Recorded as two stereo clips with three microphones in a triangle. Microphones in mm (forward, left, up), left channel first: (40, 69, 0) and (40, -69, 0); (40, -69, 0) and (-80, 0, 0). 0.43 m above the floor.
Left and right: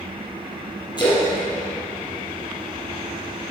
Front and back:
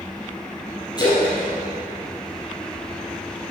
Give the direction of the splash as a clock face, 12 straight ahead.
11 o'clock.